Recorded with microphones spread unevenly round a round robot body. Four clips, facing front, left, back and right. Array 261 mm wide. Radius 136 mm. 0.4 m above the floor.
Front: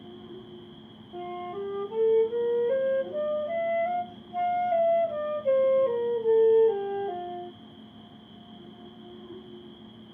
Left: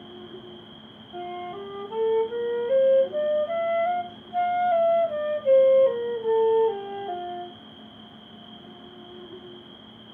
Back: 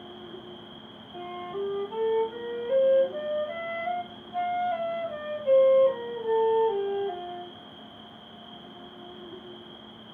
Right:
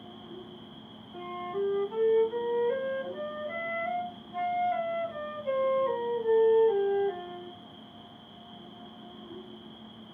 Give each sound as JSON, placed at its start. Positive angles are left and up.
{"t": 0.0, "sound": "an insect", "azimuth_deg": 125, "distance_m": 4.0}
{"t": 1.1, "sound": "a flute", "azimuth_deg": 55, "distance_m": 0.8}